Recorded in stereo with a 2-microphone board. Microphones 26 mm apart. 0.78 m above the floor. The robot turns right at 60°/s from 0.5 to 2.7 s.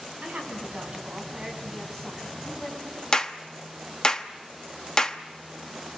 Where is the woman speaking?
75° right, 6.5 m; by 3.0 s 60° left, 6.5 m.